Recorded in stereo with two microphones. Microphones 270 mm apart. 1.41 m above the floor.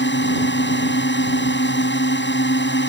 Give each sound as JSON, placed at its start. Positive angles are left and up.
{"t": 0.0, "sound": "a drone", "side_deg": 45}